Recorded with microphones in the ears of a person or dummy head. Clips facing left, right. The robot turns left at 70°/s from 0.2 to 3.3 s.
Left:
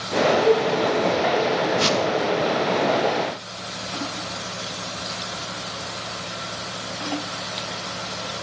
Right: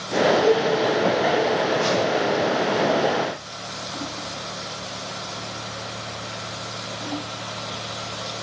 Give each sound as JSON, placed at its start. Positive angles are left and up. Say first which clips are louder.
{"t": 0.4, "sound": "a cowbell", "louder": "left 1 dB", "side_deg": -75, "distance_m": 5.5}
{"t": 1.8, "sound": "a whoosh", "louder": "even", "side_deg": 55, "distance_m": 1.3}